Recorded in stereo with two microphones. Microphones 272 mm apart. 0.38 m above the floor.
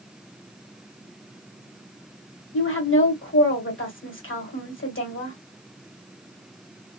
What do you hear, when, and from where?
2.5 s a woman speaking: 50° left (ahead or behind), 1.3 m